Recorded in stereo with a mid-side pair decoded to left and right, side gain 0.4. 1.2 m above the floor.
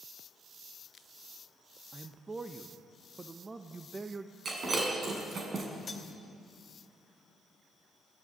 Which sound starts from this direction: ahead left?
Cutlery clinking, at 5.9 s.